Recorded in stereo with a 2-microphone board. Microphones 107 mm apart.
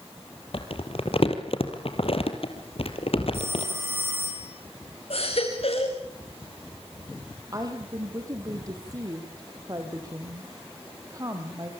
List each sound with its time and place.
0.5 s crumpling: 60° left (ahead or behind), 3 m
3.3 s a phone ringing: 20° right (ahead or behind), 7.5 m
5.1 s a baby crying: 65° left (ahead or behind), 6.5 m
7.5 s a woman speaking: 35° right (ahead or behind), 5 m